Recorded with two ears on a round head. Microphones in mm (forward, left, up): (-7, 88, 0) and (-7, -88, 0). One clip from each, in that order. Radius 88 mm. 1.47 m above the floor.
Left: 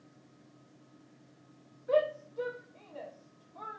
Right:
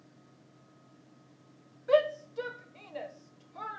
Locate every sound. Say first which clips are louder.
1.9 s a shout: right 3 dB; 55° right (ahead or behind), 1.1 m